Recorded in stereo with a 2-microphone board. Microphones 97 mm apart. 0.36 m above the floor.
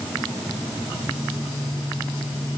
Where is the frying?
No frying in this recording.